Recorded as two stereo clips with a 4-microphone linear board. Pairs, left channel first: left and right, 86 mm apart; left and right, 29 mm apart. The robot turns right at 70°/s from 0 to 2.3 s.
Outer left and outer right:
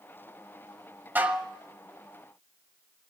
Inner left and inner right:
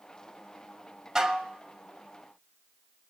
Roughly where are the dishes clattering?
Right.